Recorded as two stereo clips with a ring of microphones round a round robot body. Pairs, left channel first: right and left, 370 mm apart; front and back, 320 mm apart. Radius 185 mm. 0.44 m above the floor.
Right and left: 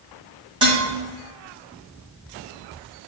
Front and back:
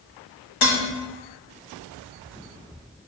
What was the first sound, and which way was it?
Dishes clattering, 10° left.